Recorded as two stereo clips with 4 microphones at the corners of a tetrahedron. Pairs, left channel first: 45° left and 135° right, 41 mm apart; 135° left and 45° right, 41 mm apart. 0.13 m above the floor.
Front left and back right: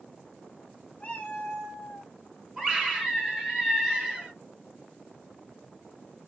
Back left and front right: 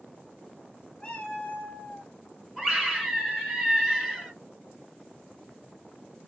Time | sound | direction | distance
1.0 | a cat meowing | 75° left | 0.9 m
2.6 | a scream | 115° right | 1.3 m